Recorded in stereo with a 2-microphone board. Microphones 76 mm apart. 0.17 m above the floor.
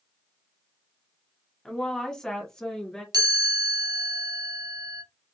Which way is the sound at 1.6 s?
5° left (ahead or behind).